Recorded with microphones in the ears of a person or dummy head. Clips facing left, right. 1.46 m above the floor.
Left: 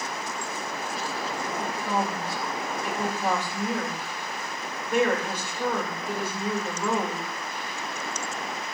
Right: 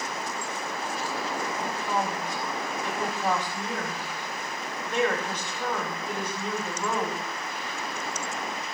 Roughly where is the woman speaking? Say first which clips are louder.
Left 2 dB; centre.